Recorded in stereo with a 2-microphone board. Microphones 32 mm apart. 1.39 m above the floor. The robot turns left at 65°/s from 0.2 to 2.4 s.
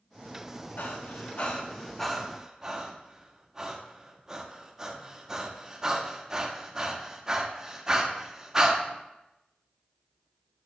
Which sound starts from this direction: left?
Breathing, at 0.8 s.